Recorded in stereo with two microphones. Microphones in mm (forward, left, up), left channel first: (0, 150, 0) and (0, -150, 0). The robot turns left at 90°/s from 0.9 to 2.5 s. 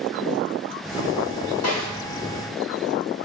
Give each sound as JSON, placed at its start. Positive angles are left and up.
{"t": 1.6, "sound": "a snare drum", "side_deg": 55, "distance_m": 1.2}